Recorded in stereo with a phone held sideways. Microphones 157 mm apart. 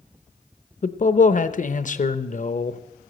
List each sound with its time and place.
0.8 s a man speaking: 55° left (ahead or behind), 0.8 m